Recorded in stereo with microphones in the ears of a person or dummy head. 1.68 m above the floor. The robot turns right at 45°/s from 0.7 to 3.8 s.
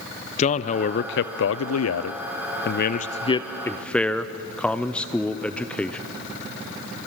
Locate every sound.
0.4 s a man speaking: 35° left, 0.7 m; by 6.0 s 175° left, 0.7 m